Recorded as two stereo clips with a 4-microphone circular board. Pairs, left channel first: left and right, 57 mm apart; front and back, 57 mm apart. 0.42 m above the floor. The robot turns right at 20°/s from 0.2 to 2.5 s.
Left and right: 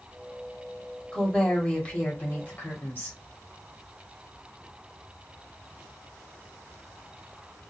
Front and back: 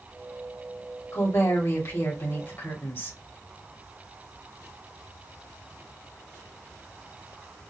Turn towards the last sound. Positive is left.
turn(degrees=45)